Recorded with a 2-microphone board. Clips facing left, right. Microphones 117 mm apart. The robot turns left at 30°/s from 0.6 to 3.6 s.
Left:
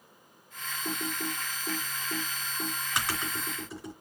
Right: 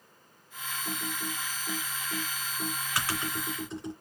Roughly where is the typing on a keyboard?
Left.